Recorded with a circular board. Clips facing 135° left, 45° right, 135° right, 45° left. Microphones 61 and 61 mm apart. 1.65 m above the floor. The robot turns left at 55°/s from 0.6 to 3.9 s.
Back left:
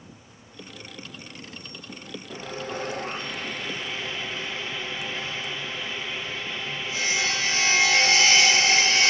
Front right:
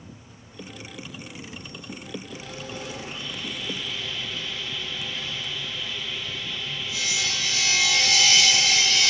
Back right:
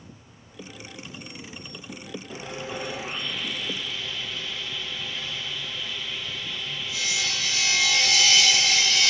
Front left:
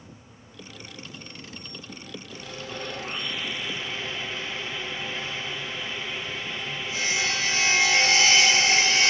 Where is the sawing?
Straight behind, 1.0 m; by 9.1 s 90° left, 1.0 m.